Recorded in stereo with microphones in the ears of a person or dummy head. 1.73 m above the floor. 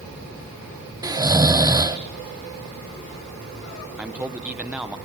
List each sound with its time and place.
1.0 s snoring: 20° right (ahead or behind), 1.1 m
4.0 s a man speaking: 10° right (ahead or behind), 1.3 m